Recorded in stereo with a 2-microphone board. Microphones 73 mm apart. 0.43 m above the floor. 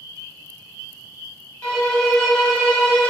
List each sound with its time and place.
1.6 s a violin: 20° left (ahead or behind), 1.5 m